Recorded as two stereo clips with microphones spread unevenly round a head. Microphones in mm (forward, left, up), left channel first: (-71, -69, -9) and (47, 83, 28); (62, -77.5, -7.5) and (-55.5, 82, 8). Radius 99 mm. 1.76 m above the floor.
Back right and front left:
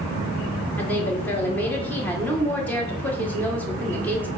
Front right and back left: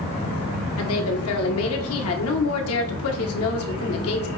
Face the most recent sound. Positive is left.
turn(degrees=-45)